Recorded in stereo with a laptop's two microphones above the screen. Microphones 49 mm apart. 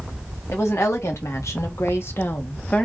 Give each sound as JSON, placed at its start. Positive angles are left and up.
{"t": 0.5, "sound": "a woman speaking", "side_deg": 70, "distance_m": 1.7}